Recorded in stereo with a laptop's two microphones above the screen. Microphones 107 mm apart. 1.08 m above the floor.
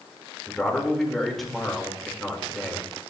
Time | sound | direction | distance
0.5 | a man speaking | centre (ahead or behind) | 1.9 m